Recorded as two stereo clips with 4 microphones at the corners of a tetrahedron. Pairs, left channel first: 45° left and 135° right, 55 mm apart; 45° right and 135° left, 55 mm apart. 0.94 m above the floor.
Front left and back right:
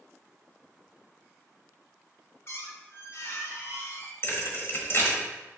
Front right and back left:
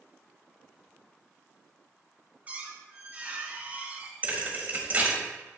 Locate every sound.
2.5 s a squeak: 75° left, 1.0 m
4.2 s a thud: 80° left, 1.2 m